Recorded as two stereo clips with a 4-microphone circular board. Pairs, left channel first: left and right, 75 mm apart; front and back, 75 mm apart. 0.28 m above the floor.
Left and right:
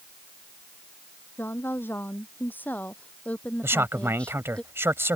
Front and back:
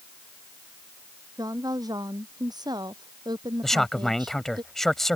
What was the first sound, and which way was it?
A woman speaking, 150° left.